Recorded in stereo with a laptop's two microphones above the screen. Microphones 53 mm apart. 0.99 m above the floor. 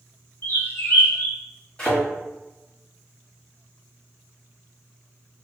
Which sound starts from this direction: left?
A bird, at 0.4 s.